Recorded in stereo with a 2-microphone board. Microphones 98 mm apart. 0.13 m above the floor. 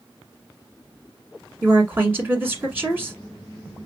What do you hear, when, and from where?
1.6 s a woman speaking: 20° right (ahead or behind), 1.4 m